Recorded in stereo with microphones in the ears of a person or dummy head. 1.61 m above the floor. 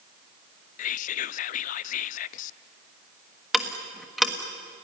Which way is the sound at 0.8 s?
50° left (ahead or behind).